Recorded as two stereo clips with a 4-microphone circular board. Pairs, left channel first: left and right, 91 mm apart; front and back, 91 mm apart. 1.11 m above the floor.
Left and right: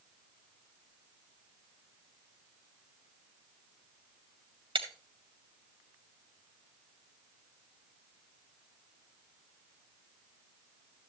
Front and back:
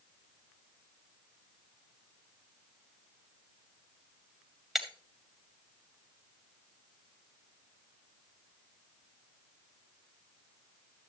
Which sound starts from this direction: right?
Breaking glass, at 4.8 s.